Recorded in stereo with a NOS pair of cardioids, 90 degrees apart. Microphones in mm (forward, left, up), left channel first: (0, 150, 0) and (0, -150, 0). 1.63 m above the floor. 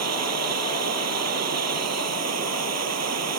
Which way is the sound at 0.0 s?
55° right.